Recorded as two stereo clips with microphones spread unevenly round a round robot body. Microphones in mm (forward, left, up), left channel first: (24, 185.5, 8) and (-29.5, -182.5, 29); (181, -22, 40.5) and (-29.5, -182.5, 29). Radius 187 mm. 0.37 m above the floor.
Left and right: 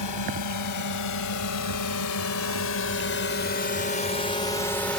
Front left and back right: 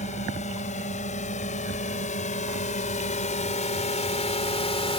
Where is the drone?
105° left; by 5.0 s 5° left.